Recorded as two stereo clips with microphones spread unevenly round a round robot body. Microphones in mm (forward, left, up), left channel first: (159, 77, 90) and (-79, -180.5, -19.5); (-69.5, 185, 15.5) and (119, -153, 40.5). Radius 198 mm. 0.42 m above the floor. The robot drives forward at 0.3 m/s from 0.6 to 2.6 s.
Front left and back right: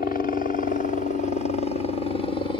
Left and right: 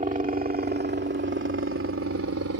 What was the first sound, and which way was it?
A helicopter, 25° right.